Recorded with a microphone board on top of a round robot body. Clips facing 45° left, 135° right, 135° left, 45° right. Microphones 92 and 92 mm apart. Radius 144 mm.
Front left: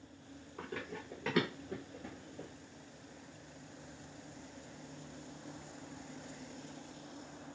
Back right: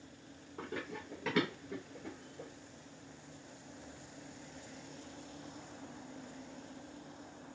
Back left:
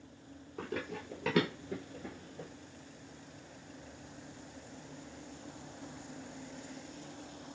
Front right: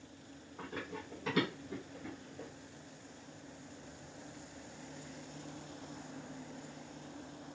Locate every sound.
0.6 s running footsteps: 165° left, 0.8 m; by 2.5 s 60° left, 0.7 m